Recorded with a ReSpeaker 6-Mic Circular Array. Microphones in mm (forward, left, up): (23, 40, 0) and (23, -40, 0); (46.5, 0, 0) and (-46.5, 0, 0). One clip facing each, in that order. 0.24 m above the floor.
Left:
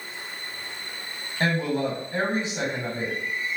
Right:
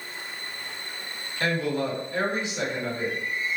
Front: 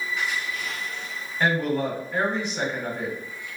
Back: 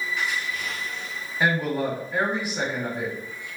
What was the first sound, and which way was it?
A woman speaking, 100° left.